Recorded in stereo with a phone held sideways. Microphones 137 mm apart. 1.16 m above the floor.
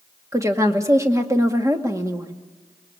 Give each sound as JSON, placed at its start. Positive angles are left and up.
{"t": 0.3, "sound": "a woman speaking", "side_deg": -20, "distance_m": 2.0}